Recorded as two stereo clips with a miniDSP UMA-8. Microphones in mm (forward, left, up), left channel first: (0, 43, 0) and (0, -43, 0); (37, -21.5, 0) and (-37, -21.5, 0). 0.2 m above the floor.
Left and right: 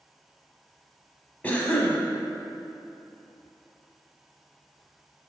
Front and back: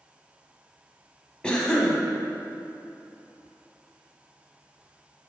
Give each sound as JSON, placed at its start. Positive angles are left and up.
{"t": 1.4, "sound": "a cough", "azimuth_deg": 55, "distance_m": 1.2}